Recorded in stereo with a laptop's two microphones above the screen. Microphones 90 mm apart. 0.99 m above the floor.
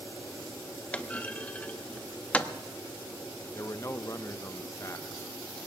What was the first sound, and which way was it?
A clunk, 15° left (ahead or behind).